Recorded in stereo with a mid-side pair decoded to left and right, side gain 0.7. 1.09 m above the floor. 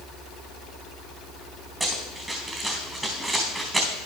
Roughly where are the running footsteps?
Ahead.